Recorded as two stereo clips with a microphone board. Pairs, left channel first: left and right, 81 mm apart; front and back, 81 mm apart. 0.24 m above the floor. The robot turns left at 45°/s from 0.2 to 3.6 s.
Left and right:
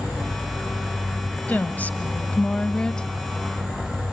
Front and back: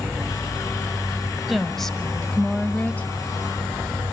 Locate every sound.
1.5 s a woman speaking: 95° left, 1.1 m; by 3.1 s 25° left, 1.1 m